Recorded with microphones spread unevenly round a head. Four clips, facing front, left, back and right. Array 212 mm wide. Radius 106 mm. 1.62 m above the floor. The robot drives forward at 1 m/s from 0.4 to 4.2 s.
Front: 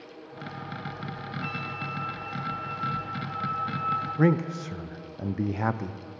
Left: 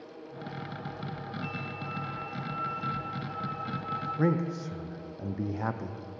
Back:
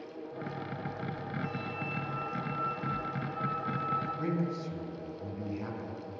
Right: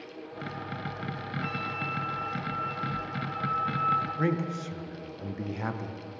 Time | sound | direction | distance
1.4 | a flute | 50° right | 0.6 m
4.2 | a man speaking | 10° left | 0.8 m